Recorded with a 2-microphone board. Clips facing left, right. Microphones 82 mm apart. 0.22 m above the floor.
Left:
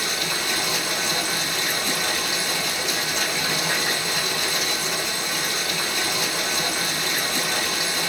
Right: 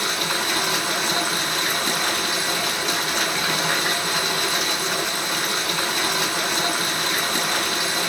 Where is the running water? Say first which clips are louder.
Right 3 dB; 65° right (ahead or behind), 0.8 m.